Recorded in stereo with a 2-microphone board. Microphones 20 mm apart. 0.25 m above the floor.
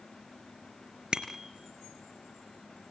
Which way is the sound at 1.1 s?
45° right (ahead or behind).